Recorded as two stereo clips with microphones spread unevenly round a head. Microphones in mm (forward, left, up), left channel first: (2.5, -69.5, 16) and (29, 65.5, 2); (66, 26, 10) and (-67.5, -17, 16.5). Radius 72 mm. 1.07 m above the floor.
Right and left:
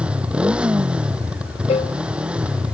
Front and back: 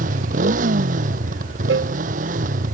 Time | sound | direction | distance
0.0 | a motorcycle | 165° left | ?
1.7 | a cowbell | 155° right | ?